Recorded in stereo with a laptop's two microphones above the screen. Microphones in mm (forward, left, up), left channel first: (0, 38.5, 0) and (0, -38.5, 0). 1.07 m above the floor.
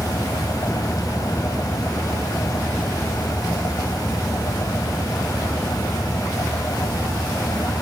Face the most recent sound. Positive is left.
turn(degrees=50)  # may be behind; listen again after turning